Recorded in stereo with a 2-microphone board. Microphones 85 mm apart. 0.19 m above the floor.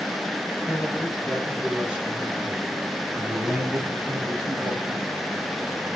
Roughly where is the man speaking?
Centre.